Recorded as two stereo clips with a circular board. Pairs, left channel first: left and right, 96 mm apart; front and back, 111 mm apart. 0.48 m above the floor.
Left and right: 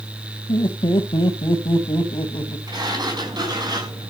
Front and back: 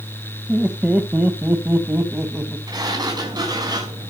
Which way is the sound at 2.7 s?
130° right.